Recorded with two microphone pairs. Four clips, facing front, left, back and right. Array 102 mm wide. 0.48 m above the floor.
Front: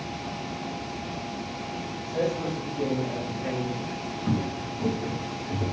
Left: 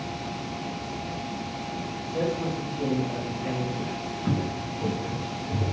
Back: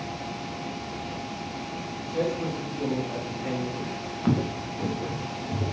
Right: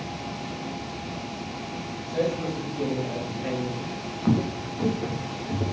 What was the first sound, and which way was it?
A man speaking, 65° right.